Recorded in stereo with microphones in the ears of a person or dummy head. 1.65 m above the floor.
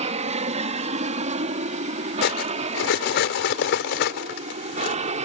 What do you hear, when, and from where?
0.0 s an aircraft: 35° right (ahead or behind)
2.2 s cutlery clinking: 65° left (ahead or behind)